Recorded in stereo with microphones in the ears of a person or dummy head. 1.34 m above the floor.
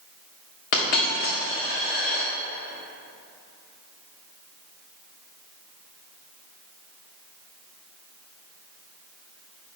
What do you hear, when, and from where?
0.7 s a dropped coin: 50° left (ahead or behind), 1.1 m